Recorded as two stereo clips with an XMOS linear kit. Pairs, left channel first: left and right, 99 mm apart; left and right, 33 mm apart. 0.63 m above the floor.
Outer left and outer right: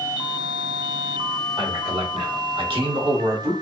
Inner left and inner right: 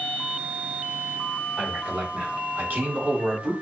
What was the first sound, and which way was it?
A man speaking, 60° right (ahead or behind).